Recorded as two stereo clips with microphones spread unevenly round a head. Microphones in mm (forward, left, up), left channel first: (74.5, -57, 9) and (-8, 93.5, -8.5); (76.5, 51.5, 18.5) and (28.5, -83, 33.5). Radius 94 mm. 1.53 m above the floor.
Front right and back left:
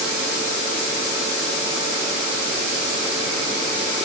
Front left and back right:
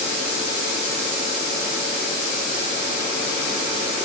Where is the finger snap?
I don't hear a finger snap.